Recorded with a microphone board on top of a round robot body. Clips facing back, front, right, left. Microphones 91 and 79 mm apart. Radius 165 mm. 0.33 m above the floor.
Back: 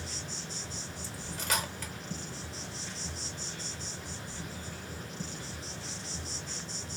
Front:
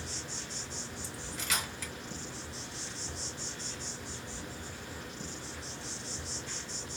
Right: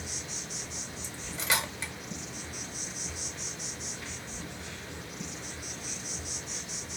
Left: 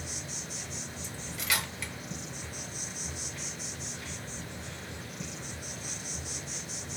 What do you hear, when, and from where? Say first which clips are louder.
0.0 s an insect: back 1 dB, even; 140° left, 1.7 m
1.0 s cutlery clinking: back 4 dB, right 3 dB; 145° right, 1.2 m